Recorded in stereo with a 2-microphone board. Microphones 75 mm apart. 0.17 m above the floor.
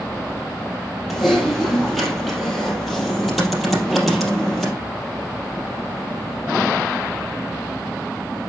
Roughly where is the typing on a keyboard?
Centre.